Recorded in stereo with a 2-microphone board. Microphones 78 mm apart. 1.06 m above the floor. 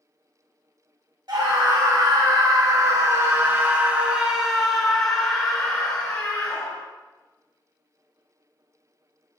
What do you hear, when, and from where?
1.3 s a scream: 65° right (ahead or behind), 2 m; by 6.8 s 25° left (ahead or behind), 2.5 m